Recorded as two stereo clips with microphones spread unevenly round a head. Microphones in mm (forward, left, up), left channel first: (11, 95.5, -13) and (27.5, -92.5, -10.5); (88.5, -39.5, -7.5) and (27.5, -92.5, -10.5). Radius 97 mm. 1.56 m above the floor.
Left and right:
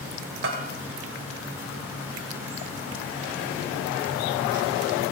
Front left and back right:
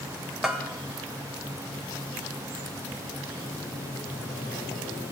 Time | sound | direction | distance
0.4 | a bell | 50° right | 2.0 m